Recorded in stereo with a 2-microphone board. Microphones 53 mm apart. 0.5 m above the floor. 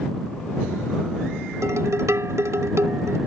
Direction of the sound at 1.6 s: 65° right (ahead or behind).